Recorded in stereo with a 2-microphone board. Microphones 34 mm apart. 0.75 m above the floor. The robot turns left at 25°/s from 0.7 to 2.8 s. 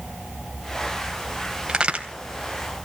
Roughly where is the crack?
Right.